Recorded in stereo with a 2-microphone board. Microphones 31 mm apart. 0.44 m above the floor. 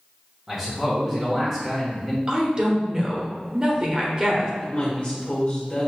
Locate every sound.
0.5 s a man speaking: 10° right (ahead or behind), 1.0 m
2.3 s a woman speaking: 25° right (ahead or behind), 1.0 m
4.6 s a woman speaking: 45° left (ahead or behind), 1.1 m